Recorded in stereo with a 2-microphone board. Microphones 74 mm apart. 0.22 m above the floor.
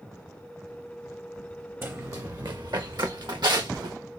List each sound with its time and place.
1.8 s running footsteps: 35° right (ahead or behind), 0.7 m; by 4.0 s 85° right, 1.5 m